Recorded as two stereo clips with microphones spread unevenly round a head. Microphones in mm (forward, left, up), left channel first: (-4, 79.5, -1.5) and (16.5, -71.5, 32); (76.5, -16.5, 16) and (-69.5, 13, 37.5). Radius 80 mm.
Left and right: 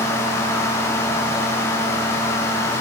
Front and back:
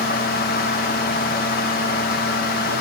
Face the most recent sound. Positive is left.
No sound to turn to.